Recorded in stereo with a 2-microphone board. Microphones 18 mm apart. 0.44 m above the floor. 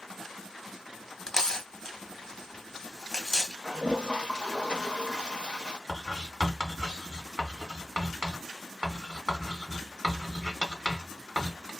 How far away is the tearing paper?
About 0.8 m.